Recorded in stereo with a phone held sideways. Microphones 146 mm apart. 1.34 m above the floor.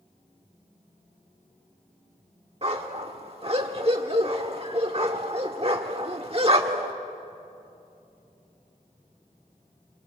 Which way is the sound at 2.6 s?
45° right (ahead or behind).